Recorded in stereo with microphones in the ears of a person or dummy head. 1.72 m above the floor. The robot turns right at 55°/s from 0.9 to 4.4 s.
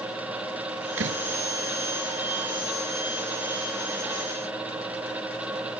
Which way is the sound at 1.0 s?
80° right.